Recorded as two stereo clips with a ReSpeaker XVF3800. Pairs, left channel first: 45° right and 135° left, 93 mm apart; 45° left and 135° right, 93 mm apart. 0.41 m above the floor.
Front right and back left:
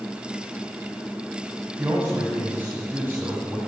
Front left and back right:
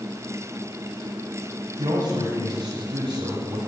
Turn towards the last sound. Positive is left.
turn(degrees=-160)